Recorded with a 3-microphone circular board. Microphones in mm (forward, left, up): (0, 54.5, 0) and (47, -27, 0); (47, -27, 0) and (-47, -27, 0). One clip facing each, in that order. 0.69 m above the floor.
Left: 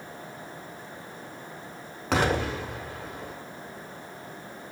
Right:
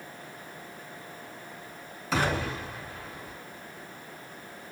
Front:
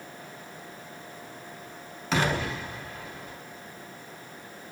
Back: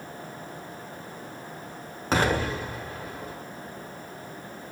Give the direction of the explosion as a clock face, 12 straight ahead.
8 o'clock.